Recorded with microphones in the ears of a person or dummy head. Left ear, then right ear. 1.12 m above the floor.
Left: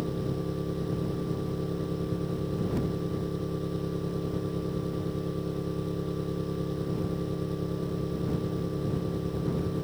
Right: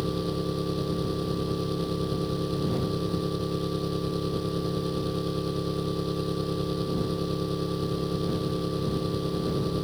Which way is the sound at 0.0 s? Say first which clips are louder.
Right 3 dB; 80° right.